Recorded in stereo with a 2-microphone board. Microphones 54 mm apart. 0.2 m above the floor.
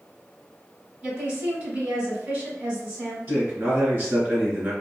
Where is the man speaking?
50° right (ahead or behind), 1.9 m.